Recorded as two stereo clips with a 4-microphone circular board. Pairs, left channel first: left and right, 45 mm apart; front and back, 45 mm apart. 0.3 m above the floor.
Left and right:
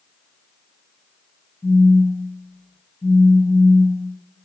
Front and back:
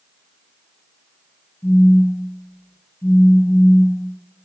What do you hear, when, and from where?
1.6 s a phone buzzing: 35° left, 1.2 m